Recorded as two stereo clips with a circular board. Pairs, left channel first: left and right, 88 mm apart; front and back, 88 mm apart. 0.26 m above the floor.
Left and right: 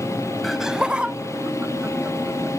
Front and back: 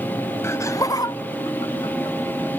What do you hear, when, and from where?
0.4 s laughter: straight ahead; by 2.5 s 25° right